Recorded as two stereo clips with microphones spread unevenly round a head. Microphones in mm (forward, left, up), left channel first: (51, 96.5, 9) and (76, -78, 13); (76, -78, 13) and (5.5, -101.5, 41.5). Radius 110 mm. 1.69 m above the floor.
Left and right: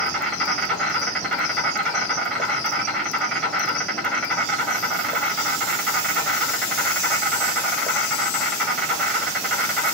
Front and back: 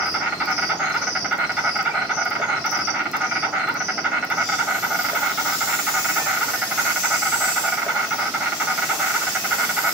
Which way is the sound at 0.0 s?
175° right.